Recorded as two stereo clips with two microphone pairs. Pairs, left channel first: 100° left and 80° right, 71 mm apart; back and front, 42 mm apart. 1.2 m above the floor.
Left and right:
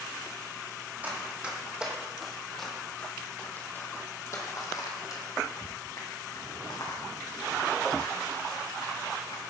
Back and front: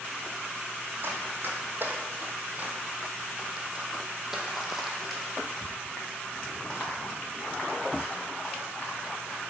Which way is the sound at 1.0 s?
20° right.